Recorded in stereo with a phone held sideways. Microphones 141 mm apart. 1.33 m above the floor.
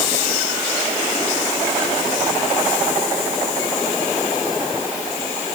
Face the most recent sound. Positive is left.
No sound to turn to.